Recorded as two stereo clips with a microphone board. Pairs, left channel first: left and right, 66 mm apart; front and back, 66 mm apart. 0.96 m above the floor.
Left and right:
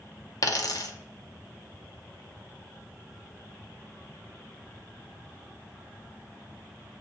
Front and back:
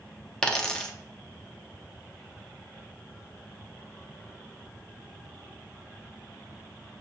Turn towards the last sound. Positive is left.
turn(degrees=75)